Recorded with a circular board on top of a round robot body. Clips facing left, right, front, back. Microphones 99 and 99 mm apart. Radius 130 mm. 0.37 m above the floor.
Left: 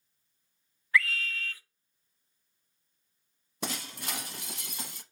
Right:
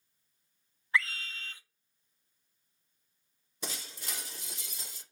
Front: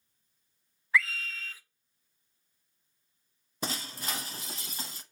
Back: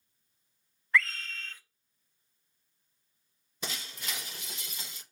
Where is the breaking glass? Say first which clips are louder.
Left 6 dB, front 4 dB; 55° left, 0.6 m.